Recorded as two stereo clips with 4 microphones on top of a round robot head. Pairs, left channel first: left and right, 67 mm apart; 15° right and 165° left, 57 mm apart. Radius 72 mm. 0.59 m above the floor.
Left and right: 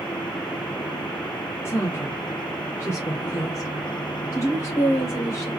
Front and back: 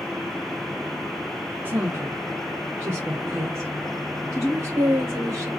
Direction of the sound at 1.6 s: 125° left.